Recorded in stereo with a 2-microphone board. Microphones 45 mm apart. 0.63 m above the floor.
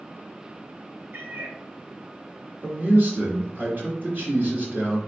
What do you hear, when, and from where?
1.1 s a cat meowing: 60° right (ahead or behind), 1.3 m
2.6 s a man speaking: 45° right (ahead or behind), 1.5 m